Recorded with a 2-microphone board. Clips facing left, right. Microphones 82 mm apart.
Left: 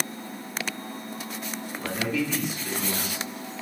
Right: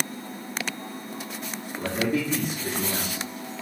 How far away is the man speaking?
About 1.6 m.